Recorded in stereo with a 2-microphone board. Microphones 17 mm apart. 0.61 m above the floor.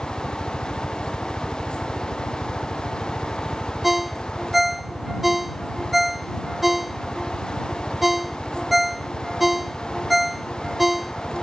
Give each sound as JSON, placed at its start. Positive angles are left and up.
{"t": 0.0, "sound": "a helicopter", "side_deg": 40}
{"t": 3.8, "sound": "a ringtone", "side_deg": -10}